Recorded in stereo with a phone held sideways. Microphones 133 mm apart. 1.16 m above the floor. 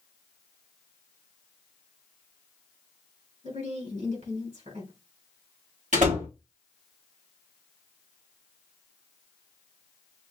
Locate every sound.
3.4 s a woman speaking: 75° right (ahead or behind), 3.5 m
5.9 s a door slam: 75° right (ahead or behind), 2 m